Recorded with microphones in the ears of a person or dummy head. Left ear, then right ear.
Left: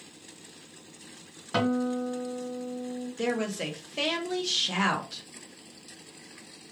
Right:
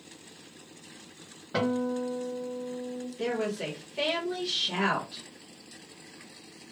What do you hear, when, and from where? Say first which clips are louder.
1.5 s a guitar: left 1 dB; 65° left (ahead or behind), 2.5 m
3.2 s a woman speaking: left 1 dB; 85° left, 1.0 m